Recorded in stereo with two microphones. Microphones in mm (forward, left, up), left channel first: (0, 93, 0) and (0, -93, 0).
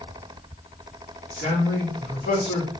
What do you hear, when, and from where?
1.3 s a man speaking: 70° left (ahead or behind), 2.5 m